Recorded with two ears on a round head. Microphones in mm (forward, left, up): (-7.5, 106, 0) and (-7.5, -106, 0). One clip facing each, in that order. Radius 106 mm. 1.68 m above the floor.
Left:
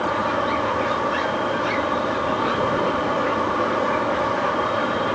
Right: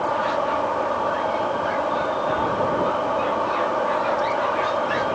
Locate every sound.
0.0 s an insect: 30° left (ahead or behind)